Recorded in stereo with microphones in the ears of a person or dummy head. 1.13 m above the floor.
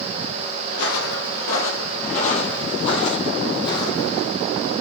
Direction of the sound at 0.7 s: 55° left (ahead or behind).